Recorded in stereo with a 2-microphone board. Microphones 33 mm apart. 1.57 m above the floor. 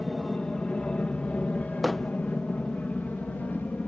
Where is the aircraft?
35° left (ahead or behind); by 3.9 s 65° left (ahead or behind).